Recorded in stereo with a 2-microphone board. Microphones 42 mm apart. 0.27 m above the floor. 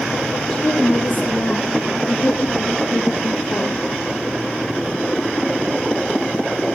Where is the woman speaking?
15° left (ahead or behind), 6.5 m; by 3.8 s 50° left (ahead or behind), 7.5 m.